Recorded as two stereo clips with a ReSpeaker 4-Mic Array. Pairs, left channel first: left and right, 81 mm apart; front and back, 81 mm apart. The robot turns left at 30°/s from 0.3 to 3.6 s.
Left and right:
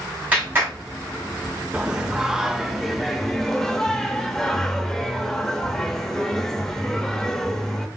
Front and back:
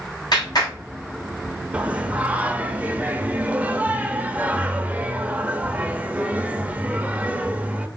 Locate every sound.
0.3 s a clap: 25° right, 3 m; by 0.7 s 35° right, 3 m
1.7 s singing: 145° right, 0.5 m; by 7.9 s 160° left, 0.5 m